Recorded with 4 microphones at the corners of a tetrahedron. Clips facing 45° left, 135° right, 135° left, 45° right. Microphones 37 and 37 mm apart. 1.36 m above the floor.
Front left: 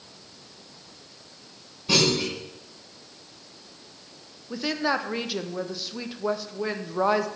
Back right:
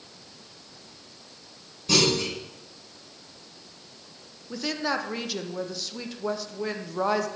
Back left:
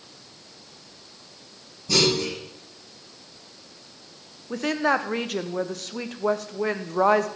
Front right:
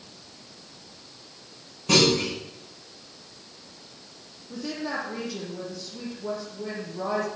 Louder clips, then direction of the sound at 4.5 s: Front left 2 dB, back left 8 dB; 120° left.